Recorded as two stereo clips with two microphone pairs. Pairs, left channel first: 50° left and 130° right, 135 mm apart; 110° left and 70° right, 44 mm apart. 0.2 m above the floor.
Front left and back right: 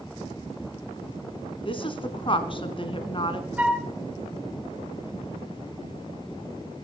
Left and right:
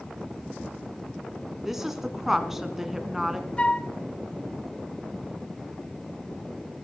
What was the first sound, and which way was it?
A woman speaking, 15° left.